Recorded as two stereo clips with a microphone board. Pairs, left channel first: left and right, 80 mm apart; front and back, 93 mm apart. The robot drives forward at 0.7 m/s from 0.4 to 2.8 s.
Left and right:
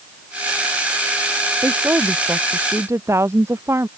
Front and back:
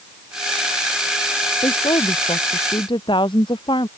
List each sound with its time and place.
1.6 s a woman speaking: 30° right; by 3.9 s 35° right